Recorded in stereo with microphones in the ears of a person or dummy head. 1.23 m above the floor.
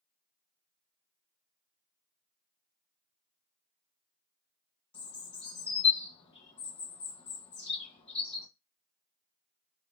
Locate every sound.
4.9 s a bird: 30° left (ahead or behind), 0.9 m